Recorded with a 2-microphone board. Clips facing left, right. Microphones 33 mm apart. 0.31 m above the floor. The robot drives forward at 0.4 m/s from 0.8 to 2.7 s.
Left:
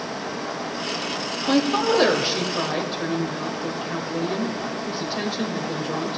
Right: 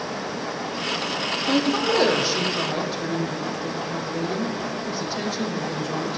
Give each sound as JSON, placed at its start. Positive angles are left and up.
{"t": 1.5, "sound": "a woman speaking", "side_deg": 20, "distance_m": 1.0}